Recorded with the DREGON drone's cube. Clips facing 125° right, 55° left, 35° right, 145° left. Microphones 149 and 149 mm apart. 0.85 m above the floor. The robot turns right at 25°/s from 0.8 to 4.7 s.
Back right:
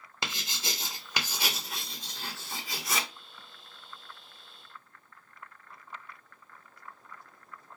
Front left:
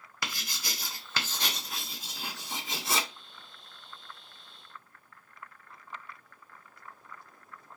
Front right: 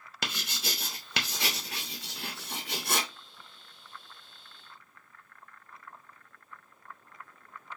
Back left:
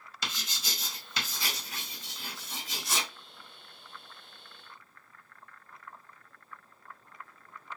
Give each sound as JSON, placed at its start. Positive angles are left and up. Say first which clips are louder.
{"t": 0.2, "sound": "writing", "louder": "back right 2 dB, front right 3 dB", "azimuth_deg": -60, "distance_m": 0.9}